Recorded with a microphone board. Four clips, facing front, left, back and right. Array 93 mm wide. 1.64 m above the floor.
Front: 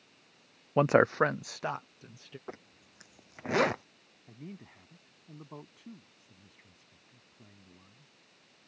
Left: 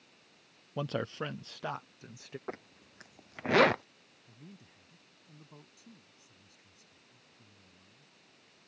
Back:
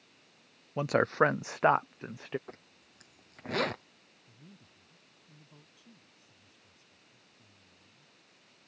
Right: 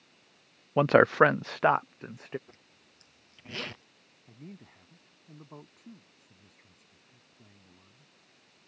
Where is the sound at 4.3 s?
35° right.